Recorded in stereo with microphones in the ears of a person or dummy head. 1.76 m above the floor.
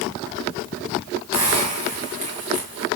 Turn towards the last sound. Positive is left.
turn(degrees=-25)  # may be behind; listen again after turning